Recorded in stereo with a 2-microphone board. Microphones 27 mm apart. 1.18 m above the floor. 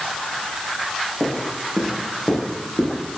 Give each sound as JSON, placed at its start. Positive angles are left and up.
{"t": 1.2, "sound": "footsteps", "side_deg": 20, "distance_m": 6.0}